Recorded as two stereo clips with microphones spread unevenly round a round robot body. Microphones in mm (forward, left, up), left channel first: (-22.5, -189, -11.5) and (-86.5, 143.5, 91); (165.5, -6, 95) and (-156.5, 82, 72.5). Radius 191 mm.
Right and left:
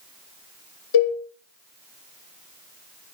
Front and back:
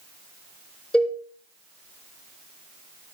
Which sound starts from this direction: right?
A cowbell, at 0.9 s.